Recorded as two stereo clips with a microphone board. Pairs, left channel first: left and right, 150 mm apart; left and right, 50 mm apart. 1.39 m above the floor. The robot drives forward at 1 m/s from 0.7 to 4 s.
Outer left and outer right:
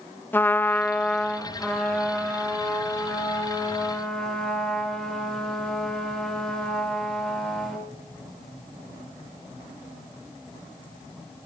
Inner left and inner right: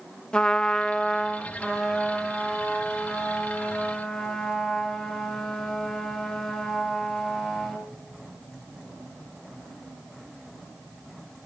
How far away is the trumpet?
About 0.6 m.